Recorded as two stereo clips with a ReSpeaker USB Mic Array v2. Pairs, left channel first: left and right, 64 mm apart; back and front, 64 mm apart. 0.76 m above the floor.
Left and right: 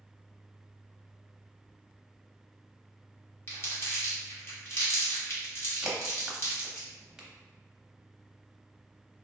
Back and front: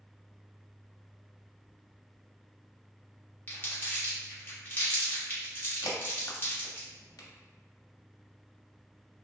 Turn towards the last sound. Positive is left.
turn(degrees=-170)